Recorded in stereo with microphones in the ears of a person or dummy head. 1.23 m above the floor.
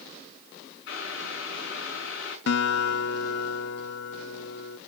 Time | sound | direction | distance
0.9 | boiling | 65° left (ahead or behind) | 5 m
2.5 | a guitar | 70° left (ahead or behind) | 0.9 m